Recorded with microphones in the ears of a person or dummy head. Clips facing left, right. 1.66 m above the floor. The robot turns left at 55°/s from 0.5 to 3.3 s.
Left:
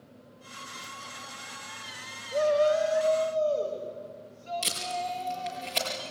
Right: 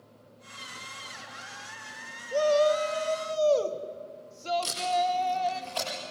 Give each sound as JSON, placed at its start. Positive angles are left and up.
{"t": 2.3, "sound": "a shout", "azimuth_deg": -45, "distance_m": 1.5}
{"t": 4.6, "sound": "tape being pulled", "side_deg": 30, "distance_m": 6.5}